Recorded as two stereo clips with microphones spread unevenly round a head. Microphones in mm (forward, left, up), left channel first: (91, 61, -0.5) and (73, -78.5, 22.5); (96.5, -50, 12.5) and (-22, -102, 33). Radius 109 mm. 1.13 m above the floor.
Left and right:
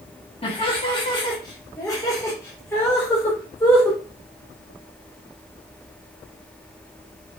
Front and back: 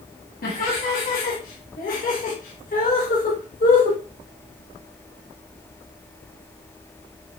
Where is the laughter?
30° left, 1.9 m; by 4.0 s 5° left, 3.5 m.